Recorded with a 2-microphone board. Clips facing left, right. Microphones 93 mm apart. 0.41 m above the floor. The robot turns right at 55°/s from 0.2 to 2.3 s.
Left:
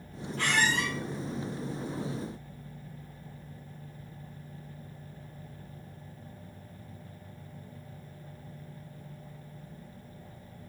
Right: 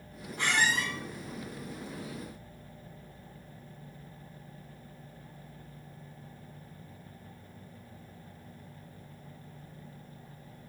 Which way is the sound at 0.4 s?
15° right (ahead or behind).